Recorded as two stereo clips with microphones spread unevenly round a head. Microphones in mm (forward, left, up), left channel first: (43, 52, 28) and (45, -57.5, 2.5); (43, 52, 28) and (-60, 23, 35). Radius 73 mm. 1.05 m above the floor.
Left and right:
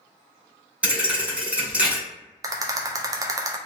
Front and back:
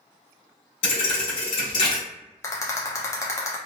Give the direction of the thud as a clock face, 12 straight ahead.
12 o'clock.